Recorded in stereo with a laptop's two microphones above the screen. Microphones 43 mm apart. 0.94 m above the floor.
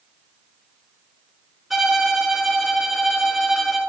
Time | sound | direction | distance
1.7 | a violin | 5° right (ahead or behind) | 0.7 m